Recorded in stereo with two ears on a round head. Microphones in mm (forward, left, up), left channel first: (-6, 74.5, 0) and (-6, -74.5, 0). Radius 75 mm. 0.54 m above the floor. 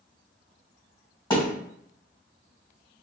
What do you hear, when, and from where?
1.3 s a thud: 25° left (ahead or behind), 1.7 m